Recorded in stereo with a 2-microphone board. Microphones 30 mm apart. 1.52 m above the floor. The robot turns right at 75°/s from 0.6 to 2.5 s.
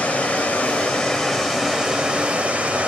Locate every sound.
0.0 s running water: 115° left, 1.7 m; by 2.9 s 100° right, 1.7 m